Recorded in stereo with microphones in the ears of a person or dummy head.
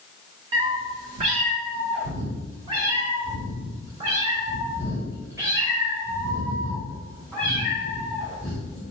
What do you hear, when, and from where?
0.5 s a cat meowing: 30° right (ahead or behind), 1.4 m; by 8.8 s 15° right (ahead or behind), 5 m